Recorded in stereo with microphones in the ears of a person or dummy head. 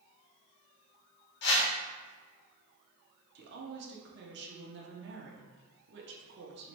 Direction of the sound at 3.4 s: 55° right (ahead or behind).